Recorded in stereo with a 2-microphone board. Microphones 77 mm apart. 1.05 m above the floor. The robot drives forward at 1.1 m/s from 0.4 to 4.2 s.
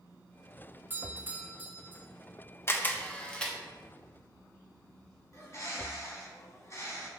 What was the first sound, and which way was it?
A doorbell, 25° right (ahead or behind).